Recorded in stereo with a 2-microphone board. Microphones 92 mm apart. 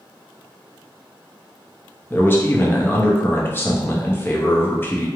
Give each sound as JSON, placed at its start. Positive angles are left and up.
{"t": 2.1, "sound": "a man speaking", "side_deg": 25, "distance_m": 0.6}